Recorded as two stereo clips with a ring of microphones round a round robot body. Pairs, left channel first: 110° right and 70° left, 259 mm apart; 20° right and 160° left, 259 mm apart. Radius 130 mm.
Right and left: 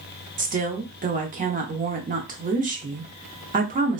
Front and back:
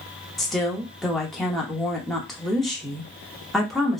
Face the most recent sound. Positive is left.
turn(degrees=65)